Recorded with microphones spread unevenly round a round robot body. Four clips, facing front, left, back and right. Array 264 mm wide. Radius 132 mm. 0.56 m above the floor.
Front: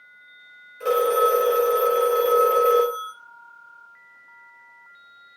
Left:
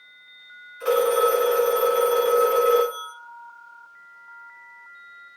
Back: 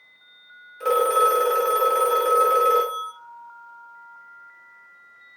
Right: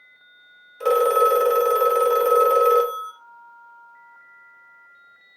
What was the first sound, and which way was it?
A phone ringing, 90° right.